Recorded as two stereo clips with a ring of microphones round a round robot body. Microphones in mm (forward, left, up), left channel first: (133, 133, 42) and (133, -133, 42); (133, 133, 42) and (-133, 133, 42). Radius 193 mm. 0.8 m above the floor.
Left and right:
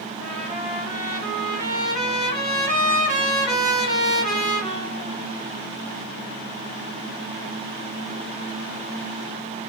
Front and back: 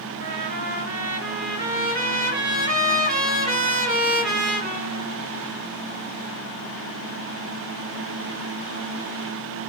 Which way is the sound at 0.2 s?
155° right.